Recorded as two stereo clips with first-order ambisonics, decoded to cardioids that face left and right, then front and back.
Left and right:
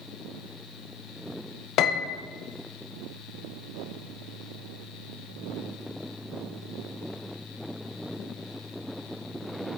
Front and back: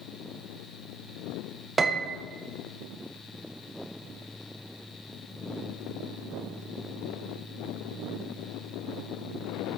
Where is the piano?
110° left, 0.6 m.